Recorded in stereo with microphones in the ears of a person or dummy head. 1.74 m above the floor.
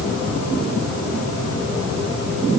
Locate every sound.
Only background noise.